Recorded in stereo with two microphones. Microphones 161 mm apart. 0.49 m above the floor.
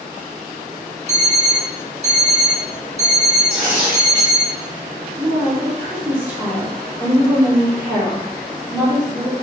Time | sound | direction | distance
1.1 | an alarm clock | 40° right (ahead or behind) | 0.8 m
3.5 | tearing paper | 50° right (ahead or behind) | 1.2 m
5.2 | a woman speaking | 10° right (ahead or behind) | 0.8 m